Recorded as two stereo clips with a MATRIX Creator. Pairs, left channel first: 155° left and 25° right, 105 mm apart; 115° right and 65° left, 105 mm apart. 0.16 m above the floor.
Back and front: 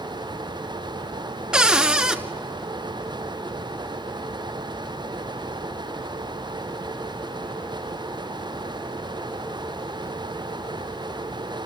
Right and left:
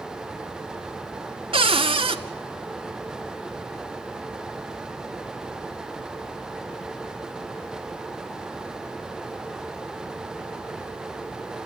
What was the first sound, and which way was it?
A cupboard door, 60° left.